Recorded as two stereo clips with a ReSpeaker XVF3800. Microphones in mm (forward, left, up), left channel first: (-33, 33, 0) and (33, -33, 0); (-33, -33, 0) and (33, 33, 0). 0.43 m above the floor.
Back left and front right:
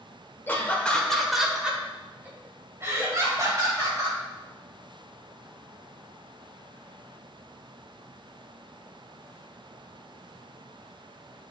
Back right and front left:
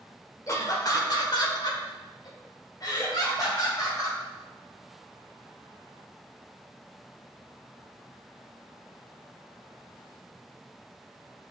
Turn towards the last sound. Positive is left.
turn(degrees=-90)